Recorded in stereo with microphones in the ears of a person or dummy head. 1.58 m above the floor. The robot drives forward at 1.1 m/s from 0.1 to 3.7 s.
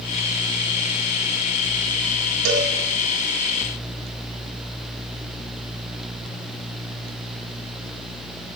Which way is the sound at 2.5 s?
80° right.